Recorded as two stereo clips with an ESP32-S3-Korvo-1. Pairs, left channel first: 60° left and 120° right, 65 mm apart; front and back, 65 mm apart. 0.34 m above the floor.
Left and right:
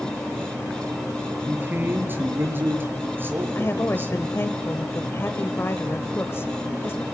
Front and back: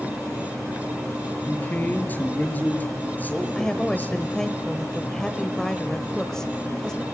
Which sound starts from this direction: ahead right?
A man speaking, at 1.5 s.